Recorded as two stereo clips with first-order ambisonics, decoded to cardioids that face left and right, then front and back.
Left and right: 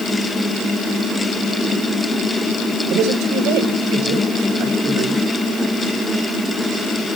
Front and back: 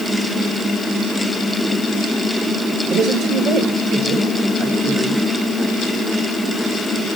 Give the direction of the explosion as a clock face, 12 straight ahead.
I don't hear an explosion.